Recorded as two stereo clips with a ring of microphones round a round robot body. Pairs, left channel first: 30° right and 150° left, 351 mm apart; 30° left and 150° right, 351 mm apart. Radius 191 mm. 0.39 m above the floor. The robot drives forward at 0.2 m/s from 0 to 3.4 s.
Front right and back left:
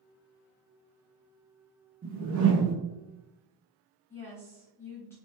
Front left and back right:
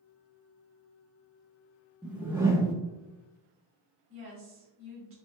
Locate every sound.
2.0 s a whoosh: 125° left, 0.8 m; by 2.8 s 135° left, 0.9 m
4.1 s a woman speaking: 110° right, 1.2 m